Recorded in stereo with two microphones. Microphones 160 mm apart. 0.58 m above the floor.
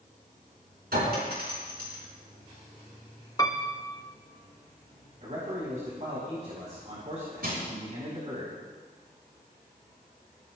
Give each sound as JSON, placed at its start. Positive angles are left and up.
{"t": 0.9, "sound": "a clink", "side_deg": -80, "distance_m": 4.5}
{"t": 3.4, "sound": "a piano", "side_deg": 20, "distance_m": 0.7}
{"t": 5.2, "sound": "a man speaking", "side_deg": -45, "distance_m": 3.5}
{"t": 7.4, "sound": "crushing", "side_deg": -70, "distance_m": 5.5}